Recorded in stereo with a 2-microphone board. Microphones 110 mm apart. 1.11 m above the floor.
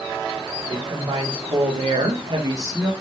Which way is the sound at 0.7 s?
60° right (ahead or behind).